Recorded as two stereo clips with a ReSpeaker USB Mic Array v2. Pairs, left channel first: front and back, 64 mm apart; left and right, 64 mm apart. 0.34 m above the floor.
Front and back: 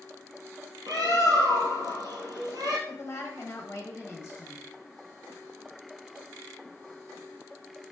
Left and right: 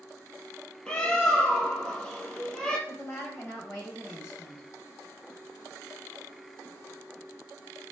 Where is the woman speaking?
40° left, 1.3 m.